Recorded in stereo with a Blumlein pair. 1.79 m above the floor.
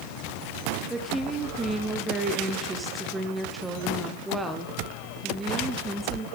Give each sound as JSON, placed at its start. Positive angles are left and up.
{"t": 0.9, "sound": "a woman speaking", "azimuth_deg": -10, "distance_m": 1.1}